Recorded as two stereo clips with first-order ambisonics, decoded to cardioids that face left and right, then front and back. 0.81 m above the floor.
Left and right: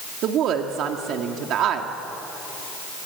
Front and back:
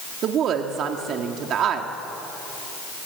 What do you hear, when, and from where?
0.2 s a woman speaking: 130° right, 1.7 m